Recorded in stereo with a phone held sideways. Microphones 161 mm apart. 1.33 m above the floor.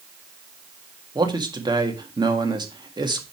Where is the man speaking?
25° right (ahead or behind), 1.8 m.